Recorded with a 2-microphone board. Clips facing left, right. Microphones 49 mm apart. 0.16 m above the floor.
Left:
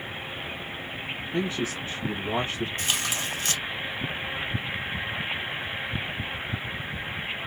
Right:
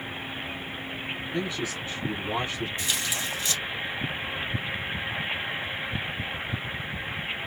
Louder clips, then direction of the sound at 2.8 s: Left 1 dB; 55° left (ahead or behind).